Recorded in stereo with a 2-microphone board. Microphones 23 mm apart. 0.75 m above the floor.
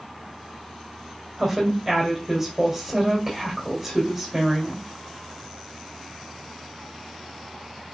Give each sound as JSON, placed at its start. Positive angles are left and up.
{"t": 1.4, "sound": "a woman speaking", "side_deg": -20, "distance_m": 2.5}